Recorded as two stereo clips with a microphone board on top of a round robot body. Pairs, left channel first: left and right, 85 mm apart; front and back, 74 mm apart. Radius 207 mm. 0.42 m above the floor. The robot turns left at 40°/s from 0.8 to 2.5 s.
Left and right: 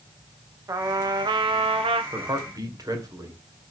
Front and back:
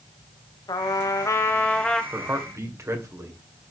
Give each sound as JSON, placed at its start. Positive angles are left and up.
{"t": 0.7, "sound": "a trumpet", "azimuth_deg": -35, "distance_m": 0.5}
{"t": 2.1, "sound": "a man speaking", "azimuth_deg": -120, "distance_m": 3.0}